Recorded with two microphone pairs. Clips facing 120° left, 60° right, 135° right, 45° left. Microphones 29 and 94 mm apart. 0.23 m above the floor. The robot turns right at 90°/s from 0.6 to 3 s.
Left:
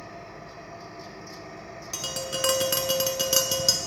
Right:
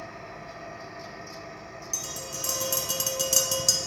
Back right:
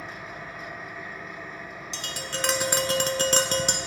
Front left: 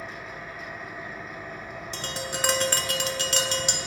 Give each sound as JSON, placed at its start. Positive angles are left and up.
{"t": 0.0, "sound": "an engine running", "azimuth_deg": -65, "distance_m": 2.5}
{"t": 1.9, "sound": "tapping", "azimuth_deg": 85, "distance_m": 0.6}